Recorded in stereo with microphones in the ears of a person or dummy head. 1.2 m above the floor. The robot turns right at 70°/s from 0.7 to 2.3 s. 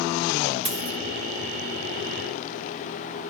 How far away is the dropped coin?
About 2.5 m.